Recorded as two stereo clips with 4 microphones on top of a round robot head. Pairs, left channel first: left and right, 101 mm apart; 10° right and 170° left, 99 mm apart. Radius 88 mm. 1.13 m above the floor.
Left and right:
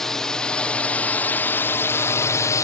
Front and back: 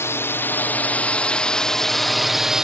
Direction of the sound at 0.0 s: 10° left.